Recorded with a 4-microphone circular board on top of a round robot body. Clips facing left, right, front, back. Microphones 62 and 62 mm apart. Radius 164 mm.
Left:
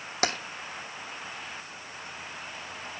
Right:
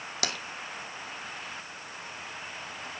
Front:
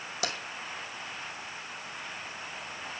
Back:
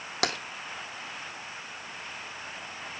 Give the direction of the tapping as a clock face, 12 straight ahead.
7 o'clock.